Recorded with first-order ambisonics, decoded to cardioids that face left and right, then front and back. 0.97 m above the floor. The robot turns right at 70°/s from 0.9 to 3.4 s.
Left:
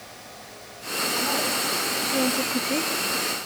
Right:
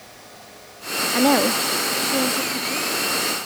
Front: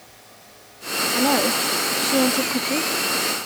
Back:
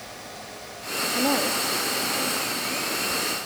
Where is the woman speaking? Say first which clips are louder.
Right 9 dB, front 4 dB; 85° right, 1.3 m; by 2.9 s 35° left, 1.3 m.